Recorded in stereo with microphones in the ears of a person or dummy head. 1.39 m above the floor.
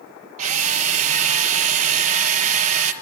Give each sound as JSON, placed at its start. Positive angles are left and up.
{"t": 0.4, "sound": "a drill", "side_deg": -45, "distance_m": 1.6}